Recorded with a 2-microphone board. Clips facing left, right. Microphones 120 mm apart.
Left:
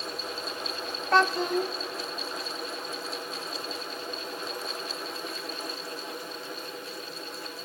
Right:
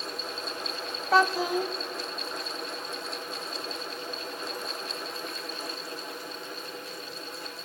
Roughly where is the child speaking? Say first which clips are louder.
Even; centre.